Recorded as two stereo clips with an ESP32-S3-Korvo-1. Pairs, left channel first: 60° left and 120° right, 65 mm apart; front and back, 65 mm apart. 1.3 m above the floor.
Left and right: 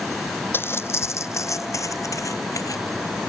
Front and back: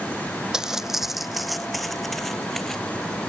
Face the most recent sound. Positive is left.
turn(degrees=85)